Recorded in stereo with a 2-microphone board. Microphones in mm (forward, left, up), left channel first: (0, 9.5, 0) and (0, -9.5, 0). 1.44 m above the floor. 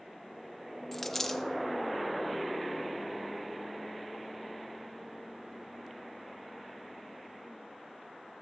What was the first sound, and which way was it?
A dropped coin, 15° left (ahead or behind).